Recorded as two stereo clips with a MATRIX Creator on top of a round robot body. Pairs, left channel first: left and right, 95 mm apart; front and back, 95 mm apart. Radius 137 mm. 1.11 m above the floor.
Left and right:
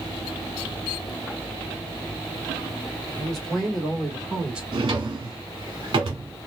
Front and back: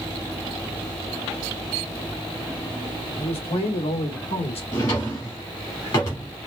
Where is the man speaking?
5° left, 2 m; by 4.6 s 10° right, 1.2 m.